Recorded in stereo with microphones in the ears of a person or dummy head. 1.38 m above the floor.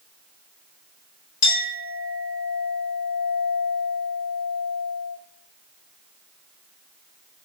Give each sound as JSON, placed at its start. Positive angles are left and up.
{"t": 1.4, "sound": "a clink", "side_deg": 75, "distance_m": 2.5}